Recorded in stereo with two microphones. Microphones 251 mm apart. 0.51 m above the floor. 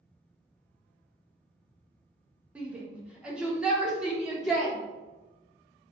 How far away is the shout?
About 1.1 m.